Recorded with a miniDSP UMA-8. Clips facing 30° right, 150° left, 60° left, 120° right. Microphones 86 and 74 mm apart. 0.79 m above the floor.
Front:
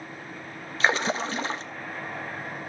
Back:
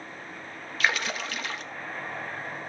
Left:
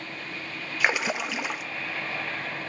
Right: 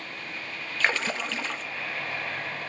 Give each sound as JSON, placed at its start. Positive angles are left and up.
{"t": 0.8, "sound": "a splash", "azimuth_deg": -5, "distance_m": 0.9}